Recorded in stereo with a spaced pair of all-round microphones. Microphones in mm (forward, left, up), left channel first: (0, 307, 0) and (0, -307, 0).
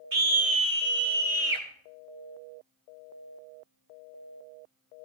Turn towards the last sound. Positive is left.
turn(degrees=-50)  # may be behind; listen again after turning